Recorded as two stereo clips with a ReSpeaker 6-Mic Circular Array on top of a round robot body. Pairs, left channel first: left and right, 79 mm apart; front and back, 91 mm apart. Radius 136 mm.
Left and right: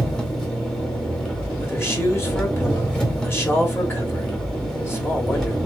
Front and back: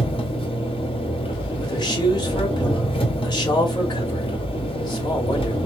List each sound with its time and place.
0.0 s an engine running: 10° left, 1.4 m
1.6 s a man speaking: 35° left, 1.9 m